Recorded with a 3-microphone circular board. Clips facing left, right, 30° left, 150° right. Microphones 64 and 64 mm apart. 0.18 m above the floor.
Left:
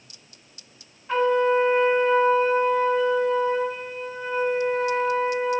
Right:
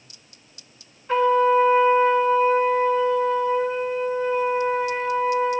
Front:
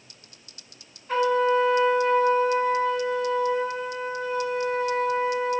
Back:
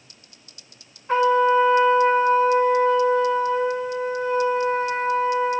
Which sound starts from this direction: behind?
A trumpet, at 1.1 s.